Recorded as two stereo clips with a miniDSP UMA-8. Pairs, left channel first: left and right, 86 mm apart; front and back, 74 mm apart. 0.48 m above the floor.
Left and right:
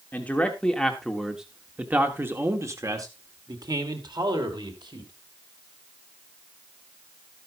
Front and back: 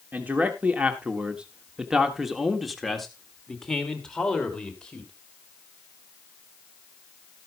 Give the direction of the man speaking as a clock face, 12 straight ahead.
7 o'clock.